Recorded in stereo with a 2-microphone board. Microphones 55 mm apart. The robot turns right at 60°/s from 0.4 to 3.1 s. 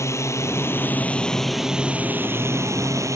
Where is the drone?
115° left; by 3.2 s 85° right.